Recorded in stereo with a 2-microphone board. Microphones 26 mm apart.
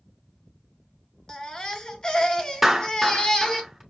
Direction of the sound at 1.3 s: 30° left (ahead or behind).